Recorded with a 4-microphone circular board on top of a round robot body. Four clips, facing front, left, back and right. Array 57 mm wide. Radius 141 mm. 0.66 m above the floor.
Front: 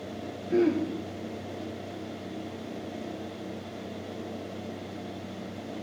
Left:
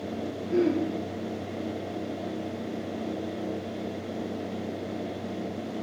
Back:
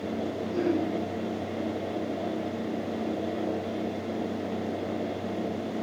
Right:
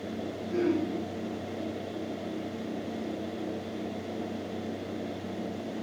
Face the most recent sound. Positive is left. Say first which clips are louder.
# left 3 dB, front 4 dB
turn(degrees=10)